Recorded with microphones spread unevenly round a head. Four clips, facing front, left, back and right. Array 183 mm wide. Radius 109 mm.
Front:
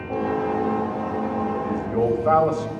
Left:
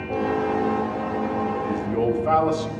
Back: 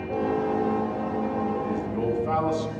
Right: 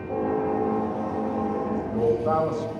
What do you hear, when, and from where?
1.6 s a man speaking: 15° left, 5 m